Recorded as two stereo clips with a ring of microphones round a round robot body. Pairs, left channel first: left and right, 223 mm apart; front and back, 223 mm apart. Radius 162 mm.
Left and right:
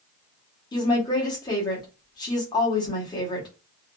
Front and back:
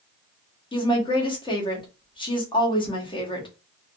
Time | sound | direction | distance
0.7 | a woman speaking | 40° left | 1.0 m